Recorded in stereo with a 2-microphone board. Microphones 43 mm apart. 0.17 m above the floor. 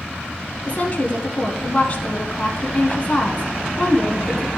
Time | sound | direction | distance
0.7 | a woman speaking | 40° left (ahead or behind) | 1.2 m